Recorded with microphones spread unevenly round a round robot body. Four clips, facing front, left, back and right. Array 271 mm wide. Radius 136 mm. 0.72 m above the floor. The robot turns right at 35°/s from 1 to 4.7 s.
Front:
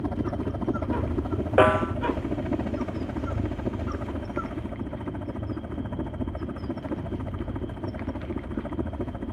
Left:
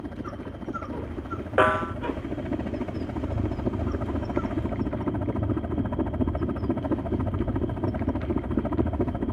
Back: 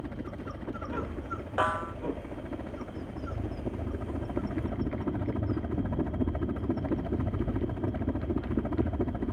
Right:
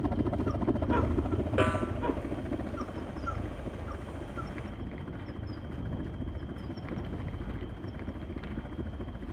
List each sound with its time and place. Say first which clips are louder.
0.0 s a helicopter: right 5 dB, front 9 dB; 30° right; by 9.3 s 100° left
1.6 s a snare drum: left 9 dB, front 10 dB; 15° left; by 1.9 s 30° left